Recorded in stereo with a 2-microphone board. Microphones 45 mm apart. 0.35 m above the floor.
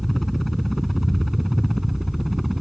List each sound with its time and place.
0.0 s a helicopter: centre (ahead or behind)